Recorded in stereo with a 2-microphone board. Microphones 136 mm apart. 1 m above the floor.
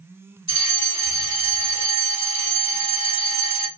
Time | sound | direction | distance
0.5 | a fire alarm | 50° left (ahead or behind) | 3 m